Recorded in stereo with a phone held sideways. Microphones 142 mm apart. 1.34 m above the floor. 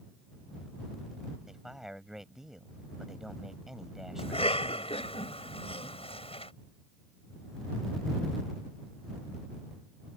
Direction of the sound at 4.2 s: 45° left (ahead or behind).